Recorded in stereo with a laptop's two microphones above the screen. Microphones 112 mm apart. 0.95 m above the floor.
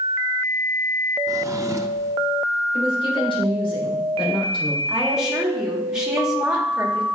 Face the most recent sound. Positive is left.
turn(degrees=-5)  # may be behind; listen again after turning